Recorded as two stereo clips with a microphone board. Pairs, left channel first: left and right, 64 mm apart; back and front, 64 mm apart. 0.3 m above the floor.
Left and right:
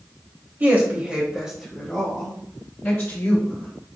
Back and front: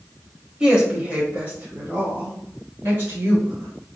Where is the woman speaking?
65° right, 1.1 m; by 3.7 s 35° left, 1.9 m.